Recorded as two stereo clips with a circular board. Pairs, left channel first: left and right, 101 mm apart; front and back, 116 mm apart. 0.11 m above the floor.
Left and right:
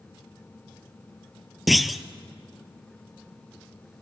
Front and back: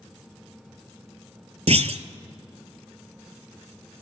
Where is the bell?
No bell in this recording.